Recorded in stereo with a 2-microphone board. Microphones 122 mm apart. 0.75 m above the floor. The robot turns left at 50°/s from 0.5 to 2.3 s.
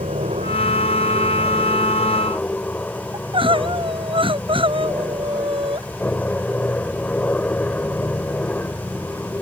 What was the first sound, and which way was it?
An aircraft, 105° right.